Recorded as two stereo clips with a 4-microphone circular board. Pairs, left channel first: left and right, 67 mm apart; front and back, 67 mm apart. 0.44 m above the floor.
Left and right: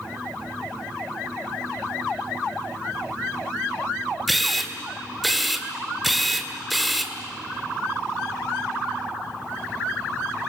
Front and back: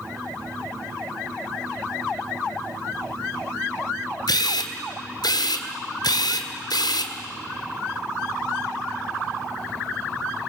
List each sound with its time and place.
4.3 s a camera shutter: straight ahead, 2.0 m